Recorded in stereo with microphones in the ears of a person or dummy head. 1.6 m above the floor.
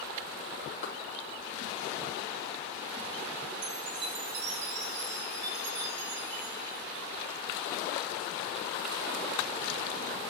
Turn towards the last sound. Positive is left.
turn(degrees=-65)  # may be behind; listen again after turning